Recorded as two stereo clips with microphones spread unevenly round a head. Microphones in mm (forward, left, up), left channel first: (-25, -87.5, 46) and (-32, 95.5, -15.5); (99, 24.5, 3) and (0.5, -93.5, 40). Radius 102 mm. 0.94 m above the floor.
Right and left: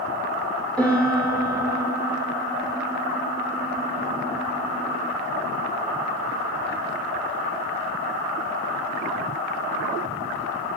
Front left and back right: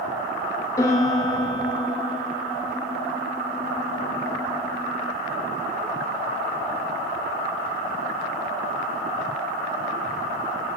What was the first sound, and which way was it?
A piano, 30° right.